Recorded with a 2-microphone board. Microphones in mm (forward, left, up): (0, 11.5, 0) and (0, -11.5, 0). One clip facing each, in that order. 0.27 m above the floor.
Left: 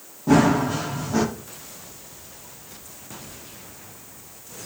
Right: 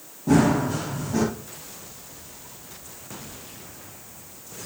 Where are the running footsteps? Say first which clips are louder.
Left 2 dB; 15° left (ahead or behind), 5.5 m.